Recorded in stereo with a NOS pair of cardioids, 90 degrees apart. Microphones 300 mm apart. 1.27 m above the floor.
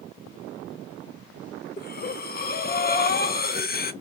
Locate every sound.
1.8 s breathing: 30° left, 1.1 m